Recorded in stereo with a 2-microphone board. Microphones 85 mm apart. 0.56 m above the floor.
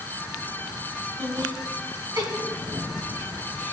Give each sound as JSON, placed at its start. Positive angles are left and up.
{"t": 1.2, "sound": "laughter", "side_deg": -45, "distance_m": 4.0}